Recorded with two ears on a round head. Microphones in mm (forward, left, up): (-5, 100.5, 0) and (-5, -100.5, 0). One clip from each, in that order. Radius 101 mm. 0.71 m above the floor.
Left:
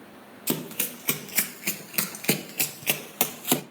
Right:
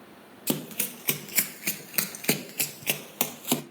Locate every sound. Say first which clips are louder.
0.5 s running footsteps: left 1 dB; 10° right (ahead or behind), 1.2 m; by 3.6 s centre (ahead or behind), 1.2 m